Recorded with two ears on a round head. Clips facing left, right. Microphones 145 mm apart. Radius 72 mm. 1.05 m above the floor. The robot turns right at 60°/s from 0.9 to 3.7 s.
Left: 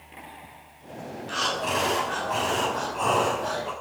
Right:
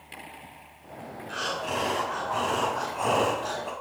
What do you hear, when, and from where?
1.3 s breathing: 85° left, 6.5 m; by 3.7 s 130° right, 6.5 m